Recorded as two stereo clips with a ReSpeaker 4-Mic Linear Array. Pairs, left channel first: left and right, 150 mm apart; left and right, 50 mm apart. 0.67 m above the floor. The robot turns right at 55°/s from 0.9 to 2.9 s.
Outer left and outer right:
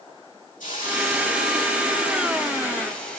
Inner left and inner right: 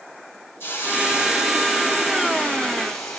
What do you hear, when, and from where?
0.6 s a hiss: 60° left, 4 m; by 3.2 s 170° left, 4 m